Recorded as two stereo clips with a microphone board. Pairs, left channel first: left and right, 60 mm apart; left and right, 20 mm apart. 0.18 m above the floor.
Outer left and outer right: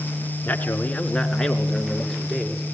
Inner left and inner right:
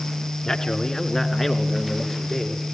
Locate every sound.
0.5 s a man speaking: 30° left (ahead or behind), 2.5 m; by 2.6 s 5° right (ahead or behind), 3.5 m